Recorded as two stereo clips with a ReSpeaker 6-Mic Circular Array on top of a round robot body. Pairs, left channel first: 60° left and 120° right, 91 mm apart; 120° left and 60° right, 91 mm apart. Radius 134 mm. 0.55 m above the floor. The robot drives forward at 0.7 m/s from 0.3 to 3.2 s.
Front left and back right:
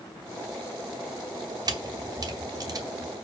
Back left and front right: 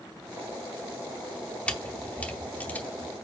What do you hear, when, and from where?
1.7 s a camera shutter: 165° right, 2.0 m; by 3.1 s 170° right, 3 m